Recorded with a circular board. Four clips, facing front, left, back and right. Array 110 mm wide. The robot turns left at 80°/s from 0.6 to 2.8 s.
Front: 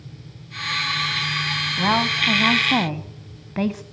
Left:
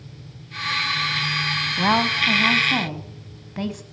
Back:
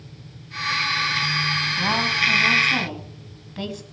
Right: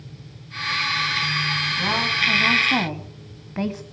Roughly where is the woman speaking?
Left.